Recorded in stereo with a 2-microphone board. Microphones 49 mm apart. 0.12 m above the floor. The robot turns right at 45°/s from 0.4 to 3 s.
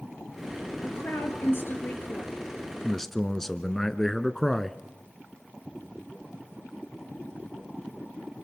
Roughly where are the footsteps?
No footsteps in this recording.